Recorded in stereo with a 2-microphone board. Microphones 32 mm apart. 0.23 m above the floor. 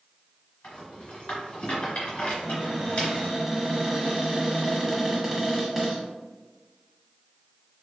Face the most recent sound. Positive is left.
turn(degrees=-10)  # may be behind; listen again after turning